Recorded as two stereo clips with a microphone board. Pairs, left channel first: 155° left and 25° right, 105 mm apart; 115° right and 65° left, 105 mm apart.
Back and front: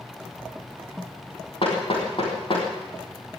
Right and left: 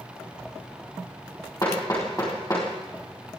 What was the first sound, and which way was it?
Hammering, 170° right.